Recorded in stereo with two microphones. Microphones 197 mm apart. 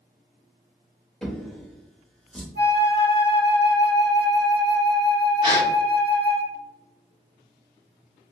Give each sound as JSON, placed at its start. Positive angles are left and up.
{"t": 1.2, "sound": "a drawer", "side_deg": 5, "distance_m": 0.7}
{"t": 2.5, "sound": "a flute", "side_deg": -55, "distance_m": 1.1}
{"t": 5.4, "sound": "a gasp", "side_deg": -25, "distance_m": 1.5}